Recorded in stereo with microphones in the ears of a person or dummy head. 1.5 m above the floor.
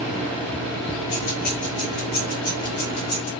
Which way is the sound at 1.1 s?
65° left (ahead or behind).